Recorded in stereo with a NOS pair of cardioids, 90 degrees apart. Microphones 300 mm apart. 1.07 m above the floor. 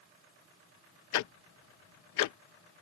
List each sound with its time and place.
1.1 s ticking: 70° left